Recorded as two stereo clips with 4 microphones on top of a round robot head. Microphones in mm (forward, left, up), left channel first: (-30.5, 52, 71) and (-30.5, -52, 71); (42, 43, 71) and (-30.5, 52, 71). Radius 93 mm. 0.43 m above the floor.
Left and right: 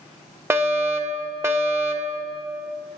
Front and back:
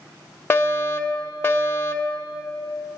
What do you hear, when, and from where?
0.5 s a fire alarm: 40° right, 2 m